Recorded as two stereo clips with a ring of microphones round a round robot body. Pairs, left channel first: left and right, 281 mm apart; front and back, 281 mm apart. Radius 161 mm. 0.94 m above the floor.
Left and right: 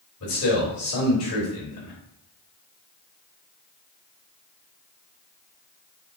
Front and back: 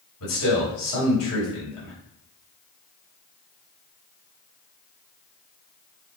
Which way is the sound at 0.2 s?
45° left.